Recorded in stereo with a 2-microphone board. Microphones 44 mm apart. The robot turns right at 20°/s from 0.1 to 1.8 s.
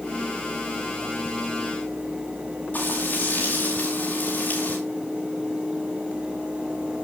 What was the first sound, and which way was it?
Frying, 40° left (ahead or behind).